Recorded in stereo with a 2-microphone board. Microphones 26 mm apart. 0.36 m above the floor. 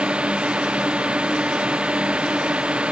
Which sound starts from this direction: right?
A drone, at 0.0 s.